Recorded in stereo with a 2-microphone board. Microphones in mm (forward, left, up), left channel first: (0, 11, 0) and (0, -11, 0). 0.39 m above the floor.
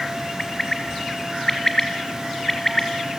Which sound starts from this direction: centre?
A bird, at 0.4 s.